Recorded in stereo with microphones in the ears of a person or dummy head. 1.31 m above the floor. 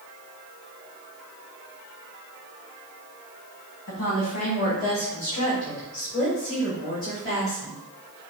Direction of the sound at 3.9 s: 60° left (ahead or behind).